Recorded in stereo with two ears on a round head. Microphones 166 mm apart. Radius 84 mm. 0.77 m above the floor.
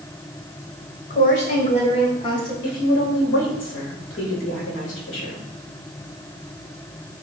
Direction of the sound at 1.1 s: 45° left (ahead or behind).